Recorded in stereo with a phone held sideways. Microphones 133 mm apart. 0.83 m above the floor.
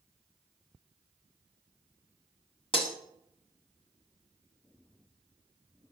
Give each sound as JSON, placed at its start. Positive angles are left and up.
{"t": 2.7, "sound": "breaking glass", "side_deg": 45, "distance_m": 1.2}